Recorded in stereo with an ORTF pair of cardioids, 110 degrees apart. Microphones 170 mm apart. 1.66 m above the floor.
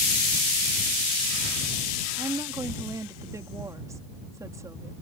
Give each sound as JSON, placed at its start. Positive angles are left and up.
{"t": 2.2, "sound": "a woman speaking", "azimuth_deg": -20}